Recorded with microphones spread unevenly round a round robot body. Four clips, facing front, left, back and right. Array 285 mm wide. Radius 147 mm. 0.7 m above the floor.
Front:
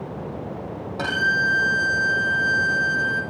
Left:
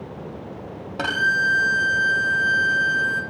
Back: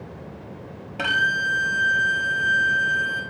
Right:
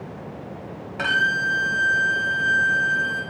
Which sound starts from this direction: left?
A violin, at 1.0 s.